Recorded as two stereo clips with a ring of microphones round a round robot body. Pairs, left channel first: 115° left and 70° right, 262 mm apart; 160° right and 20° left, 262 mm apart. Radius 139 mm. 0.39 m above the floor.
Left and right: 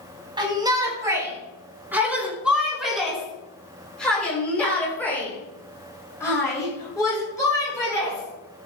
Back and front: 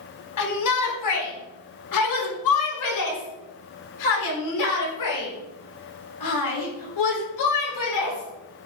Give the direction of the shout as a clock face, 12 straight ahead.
5 o'clock.